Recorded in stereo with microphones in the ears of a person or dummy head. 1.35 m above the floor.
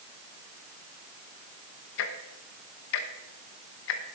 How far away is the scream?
No scream in this recording.